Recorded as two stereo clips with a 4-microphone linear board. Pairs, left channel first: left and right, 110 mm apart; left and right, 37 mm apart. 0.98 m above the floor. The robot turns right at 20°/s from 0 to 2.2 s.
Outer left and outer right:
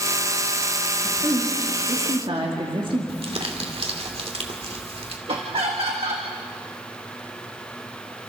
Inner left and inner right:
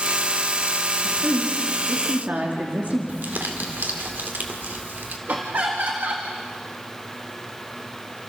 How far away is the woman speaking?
About 2.5 m.